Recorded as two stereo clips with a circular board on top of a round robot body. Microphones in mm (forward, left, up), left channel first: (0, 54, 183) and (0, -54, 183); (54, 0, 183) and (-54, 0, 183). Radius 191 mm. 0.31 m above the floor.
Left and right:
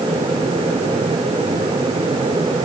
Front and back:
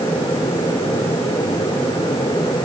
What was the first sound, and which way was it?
Only background noise.